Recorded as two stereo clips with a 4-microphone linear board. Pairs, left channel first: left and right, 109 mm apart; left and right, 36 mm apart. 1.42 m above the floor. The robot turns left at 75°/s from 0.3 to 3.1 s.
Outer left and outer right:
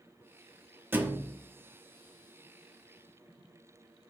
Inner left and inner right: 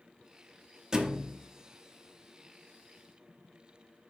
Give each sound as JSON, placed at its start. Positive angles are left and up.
{"t": 0.9, "sound": "a thud", "side_deg": -20, "distance_m": 0.9}